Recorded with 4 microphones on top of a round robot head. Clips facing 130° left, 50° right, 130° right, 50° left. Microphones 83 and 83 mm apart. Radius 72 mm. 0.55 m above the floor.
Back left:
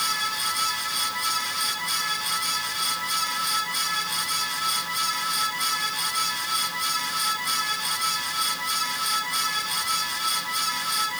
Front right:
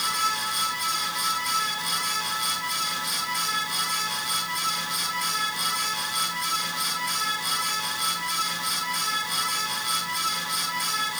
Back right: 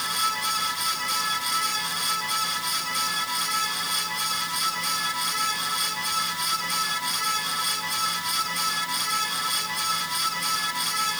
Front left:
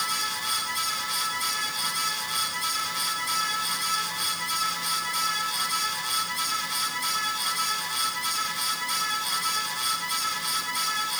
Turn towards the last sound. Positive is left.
No sound to turn to.